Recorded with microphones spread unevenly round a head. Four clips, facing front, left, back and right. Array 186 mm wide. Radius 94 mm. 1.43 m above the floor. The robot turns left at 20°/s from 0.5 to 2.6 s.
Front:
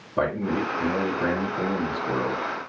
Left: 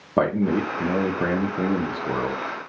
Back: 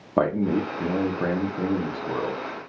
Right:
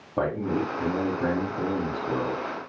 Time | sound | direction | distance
0.2 | a man speaking | 115° left | 0.9 m